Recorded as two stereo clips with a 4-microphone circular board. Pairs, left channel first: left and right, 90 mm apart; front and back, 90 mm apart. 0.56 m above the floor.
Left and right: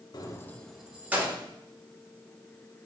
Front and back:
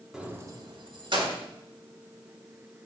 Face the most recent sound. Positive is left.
turn(degrees=-155)